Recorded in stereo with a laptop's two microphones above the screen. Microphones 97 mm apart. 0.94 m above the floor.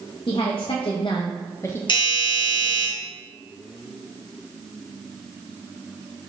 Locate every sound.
0.3 s a woman speaking: 65° left (ahead or behind), 0.7 m; by 1.8 s 20° left (ahead or behind), 0.5 m
1.9 s a doorbell: 55° left (ahead or behind), 1.3 m